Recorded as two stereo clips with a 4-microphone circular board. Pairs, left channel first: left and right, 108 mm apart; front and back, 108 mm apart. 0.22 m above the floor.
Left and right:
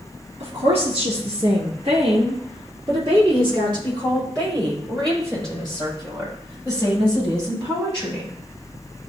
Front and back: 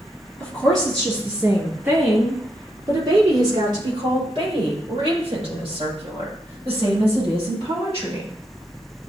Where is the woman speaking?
80° right, 3 m; by 8.3 s 155° right, 9 m.